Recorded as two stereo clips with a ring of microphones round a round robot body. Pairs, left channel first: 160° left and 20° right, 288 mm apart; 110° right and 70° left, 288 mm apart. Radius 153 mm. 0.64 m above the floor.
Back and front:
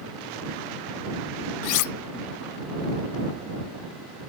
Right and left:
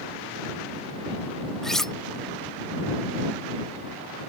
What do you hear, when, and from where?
1.6 s cutlery clinking: 160° left